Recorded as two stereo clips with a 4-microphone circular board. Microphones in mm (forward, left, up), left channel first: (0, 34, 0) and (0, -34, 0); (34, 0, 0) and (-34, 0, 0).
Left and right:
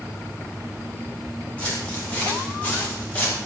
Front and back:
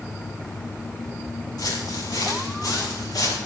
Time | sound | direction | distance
1.6 | footsteps | 20° left | 8.5 m